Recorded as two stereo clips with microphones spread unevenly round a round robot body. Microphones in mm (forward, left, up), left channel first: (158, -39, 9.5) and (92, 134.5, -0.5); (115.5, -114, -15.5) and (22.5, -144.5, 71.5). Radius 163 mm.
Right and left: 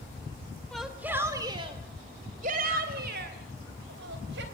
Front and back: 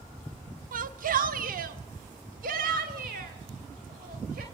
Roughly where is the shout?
Behind.